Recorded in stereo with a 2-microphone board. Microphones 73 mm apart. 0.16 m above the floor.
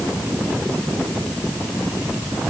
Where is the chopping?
I don't hear chopping.